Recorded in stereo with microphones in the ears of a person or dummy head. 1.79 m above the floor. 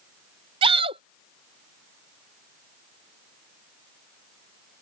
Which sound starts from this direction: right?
A shout, at 0.6 s.